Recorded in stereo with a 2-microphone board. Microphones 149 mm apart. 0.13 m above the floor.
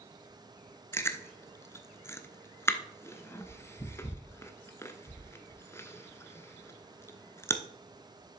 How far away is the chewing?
About 0.6 m.